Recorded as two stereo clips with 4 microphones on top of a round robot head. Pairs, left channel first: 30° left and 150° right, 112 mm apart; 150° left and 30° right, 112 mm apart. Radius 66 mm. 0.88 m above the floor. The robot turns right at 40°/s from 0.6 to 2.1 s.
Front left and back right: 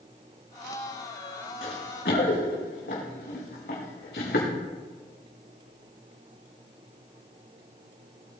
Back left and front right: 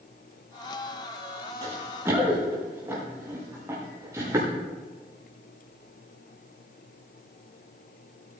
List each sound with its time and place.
1.6 s running footsteps: 20° left, 4 m; by 4.5 s 35° left, 6 m